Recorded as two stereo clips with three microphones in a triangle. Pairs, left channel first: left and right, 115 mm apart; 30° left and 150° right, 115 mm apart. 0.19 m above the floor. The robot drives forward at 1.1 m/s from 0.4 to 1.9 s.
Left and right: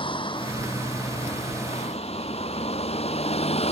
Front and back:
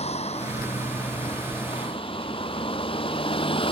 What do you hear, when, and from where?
0.0 s a vehicle: 50° left; by 3.7 s 65° left